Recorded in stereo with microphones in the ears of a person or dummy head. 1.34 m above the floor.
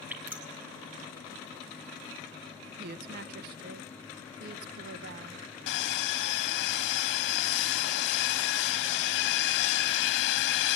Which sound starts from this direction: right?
A woman speaking, at 2.8 s.